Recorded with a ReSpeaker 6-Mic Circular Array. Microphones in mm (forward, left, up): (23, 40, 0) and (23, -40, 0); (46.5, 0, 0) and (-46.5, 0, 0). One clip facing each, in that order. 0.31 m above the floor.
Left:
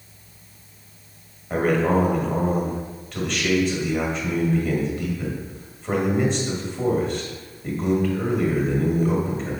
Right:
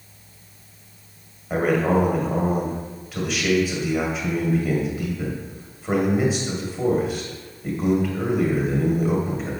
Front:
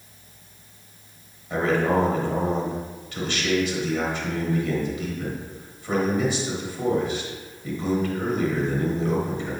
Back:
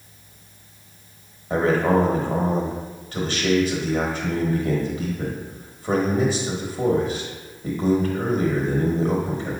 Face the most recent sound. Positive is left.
turn(degrees=-170)